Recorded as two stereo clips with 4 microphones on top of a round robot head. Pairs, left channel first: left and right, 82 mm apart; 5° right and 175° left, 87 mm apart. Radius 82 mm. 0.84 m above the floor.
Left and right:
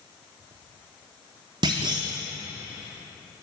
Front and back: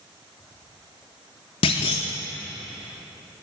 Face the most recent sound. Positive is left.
turn(degrees=-40)